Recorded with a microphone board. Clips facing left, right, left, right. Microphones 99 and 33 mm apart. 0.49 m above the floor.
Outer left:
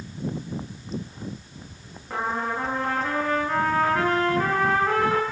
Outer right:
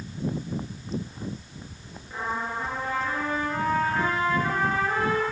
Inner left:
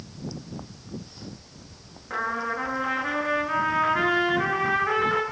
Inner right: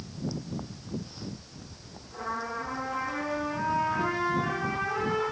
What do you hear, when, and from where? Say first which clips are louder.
2.1 s a trumpet: outer left 4 dB, inner left 6 dB; 80° left, 8 m